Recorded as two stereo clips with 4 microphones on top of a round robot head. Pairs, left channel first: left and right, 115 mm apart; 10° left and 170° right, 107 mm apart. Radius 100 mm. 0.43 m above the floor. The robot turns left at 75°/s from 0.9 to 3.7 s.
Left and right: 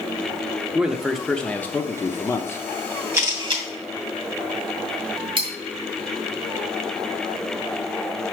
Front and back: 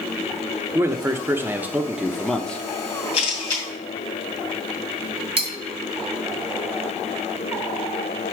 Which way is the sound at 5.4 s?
135° right.